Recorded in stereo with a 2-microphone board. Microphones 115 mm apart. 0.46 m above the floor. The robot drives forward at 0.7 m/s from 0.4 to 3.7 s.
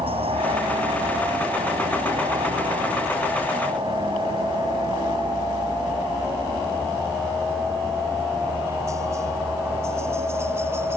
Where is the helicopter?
65° right (ahead or behind); by 11.0 s 20° right (ahead or behind).